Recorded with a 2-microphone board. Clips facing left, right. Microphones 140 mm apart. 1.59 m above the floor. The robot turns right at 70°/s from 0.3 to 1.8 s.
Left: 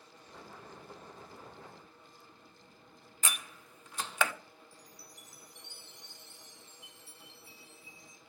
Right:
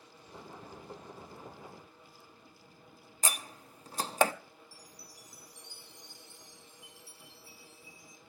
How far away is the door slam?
About 0.6 m.